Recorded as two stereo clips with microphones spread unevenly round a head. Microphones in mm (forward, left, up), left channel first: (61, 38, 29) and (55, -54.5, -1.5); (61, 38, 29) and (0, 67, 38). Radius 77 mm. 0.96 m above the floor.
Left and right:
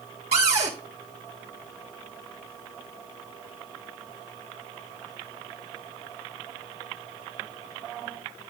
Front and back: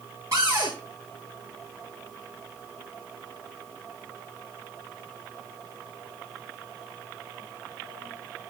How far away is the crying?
I don't hear crying.